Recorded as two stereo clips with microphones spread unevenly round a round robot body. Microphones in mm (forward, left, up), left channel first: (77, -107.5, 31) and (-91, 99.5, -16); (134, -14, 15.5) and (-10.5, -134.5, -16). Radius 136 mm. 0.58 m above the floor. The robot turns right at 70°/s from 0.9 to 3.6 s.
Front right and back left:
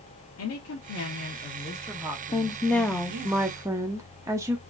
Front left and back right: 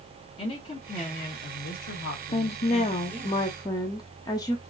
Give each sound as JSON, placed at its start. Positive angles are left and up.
{"t": 0.4, "sound": "a woman speaking", "azimuth_deg": -25, "distance_m": 0.9}
{"t": 2.3, "sound": "a woman speaking", "azimuth_deg": 20, "distance_m": 0.6}